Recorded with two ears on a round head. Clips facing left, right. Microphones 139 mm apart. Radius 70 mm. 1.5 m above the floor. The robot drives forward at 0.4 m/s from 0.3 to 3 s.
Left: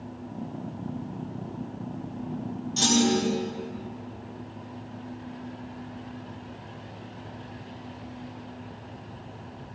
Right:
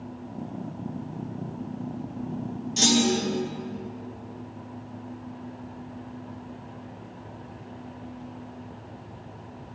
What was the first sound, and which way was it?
A clunk, 20° right (ahead or behind).